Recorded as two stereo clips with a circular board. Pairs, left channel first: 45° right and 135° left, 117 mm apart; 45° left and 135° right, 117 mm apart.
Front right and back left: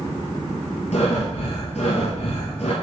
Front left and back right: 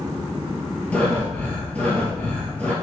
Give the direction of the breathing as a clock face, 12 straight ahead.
1 o'clock.